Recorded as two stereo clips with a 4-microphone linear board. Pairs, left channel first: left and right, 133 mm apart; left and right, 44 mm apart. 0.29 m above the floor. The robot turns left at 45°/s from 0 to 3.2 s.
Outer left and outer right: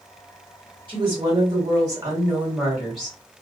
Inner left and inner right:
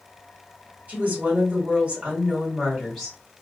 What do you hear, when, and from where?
0.9 s a woman speaking: 90° right, 1.8 m; by 3.2 s 170° left, 1.8 m